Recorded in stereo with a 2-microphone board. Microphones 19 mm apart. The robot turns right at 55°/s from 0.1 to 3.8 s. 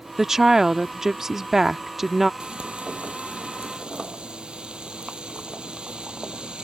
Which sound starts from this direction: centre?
A woman speaking, at 0.2 s.